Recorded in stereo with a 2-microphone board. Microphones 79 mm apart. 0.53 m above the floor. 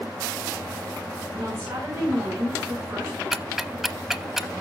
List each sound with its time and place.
1.3 s a woman speaking: 40° right (ahead or behind), 7.5 m
3.3 s ticking: 5° right (ahead or behind), 0.6 m